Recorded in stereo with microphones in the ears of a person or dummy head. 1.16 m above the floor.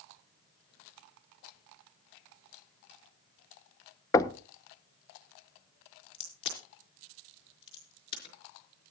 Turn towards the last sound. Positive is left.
turn(degrees=35)  # may be behind; listen again after turning